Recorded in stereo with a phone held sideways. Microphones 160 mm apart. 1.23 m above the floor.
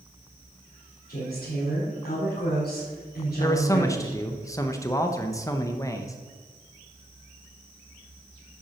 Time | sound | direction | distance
1.1 | a woman speaking | 75° left (ahead or behind) | 4.5 m
3.4 | a man speaking | 20° left (ahead or behind) | 0.8 m